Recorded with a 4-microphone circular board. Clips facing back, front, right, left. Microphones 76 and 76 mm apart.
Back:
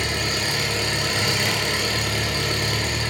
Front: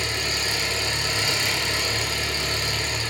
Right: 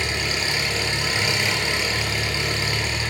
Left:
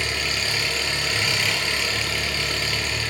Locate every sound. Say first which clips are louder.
0.0 s an engine running: back 3 dB, right 1 dB; 160° right, 2.0 m